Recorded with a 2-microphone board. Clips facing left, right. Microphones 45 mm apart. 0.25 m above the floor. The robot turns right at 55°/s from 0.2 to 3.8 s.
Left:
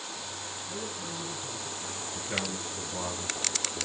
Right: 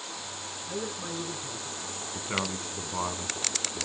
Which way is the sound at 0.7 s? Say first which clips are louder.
Right 5 dB; 65° right.